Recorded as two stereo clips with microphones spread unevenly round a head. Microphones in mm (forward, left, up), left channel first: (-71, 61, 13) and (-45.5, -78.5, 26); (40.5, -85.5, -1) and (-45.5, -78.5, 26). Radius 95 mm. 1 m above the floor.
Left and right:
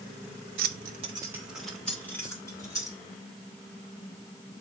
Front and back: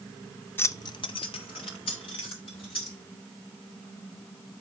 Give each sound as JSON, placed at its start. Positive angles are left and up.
{"t": 0.6, "sound": "keys jangling", "azimuth_deg": -70, "distance_m": 0.6}